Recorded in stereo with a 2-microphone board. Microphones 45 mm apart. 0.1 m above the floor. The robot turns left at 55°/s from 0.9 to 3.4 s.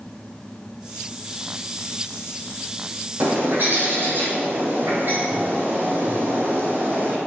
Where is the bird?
60° right (ahead or behind), 3.5 m; by 7.2 s 50° right (ahead or behind), 3.5 m.